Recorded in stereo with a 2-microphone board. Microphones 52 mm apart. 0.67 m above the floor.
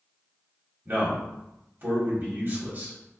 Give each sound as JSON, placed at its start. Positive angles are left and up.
{"t": 0.8, "sound": "a man speaking", "side_deg": -40, "distance_m": 1.7}